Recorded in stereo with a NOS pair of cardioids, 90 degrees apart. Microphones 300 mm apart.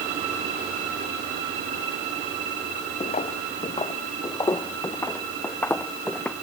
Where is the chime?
I don't hear a chime.